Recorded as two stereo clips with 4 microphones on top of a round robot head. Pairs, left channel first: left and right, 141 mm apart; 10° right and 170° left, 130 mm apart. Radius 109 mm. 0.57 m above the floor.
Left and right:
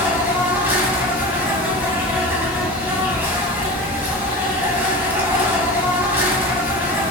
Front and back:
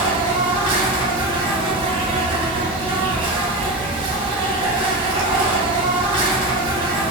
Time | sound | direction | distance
0.0 | an insect | 160° right | 1.0 m